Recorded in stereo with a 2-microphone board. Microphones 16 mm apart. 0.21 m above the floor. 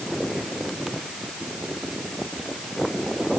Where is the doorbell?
No doorbell in this recording.